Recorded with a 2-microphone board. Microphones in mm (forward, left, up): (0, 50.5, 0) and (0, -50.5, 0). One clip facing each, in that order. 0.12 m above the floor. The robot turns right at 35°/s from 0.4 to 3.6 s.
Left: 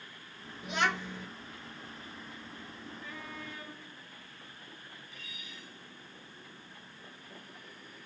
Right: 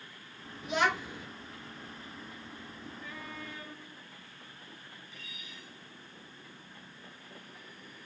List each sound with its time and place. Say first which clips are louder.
0.6 s a child speaking: right 2 dB; centre (ahead or behind), 1.1 m; by 1.3 s 15° right (ahead or behind), 1.1 m